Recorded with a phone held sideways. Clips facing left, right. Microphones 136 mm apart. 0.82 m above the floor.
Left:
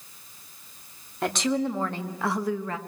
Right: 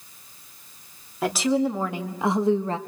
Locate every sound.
1.2 s a woman speaking: 5° right (ahead or behind), 2.5 m; by 2.8 s 30° right (ahead or behind), 1.0 m